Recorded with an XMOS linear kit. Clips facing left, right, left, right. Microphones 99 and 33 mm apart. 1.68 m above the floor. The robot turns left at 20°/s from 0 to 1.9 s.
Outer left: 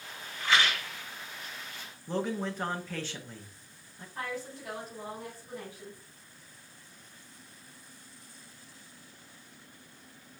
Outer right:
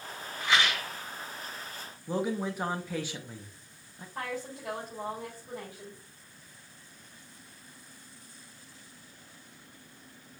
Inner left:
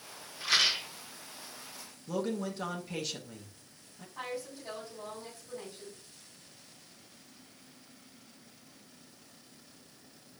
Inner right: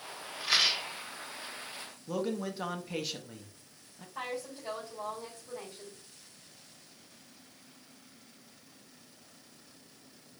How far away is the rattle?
About 2 m.